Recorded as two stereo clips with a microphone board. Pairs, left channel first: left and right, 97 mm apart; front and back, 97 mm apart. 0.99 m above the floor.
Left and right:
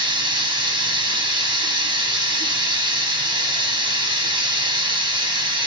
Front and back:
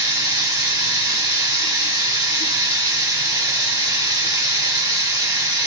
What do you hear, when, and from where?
0.0 s running water: 130° right, 1.0 m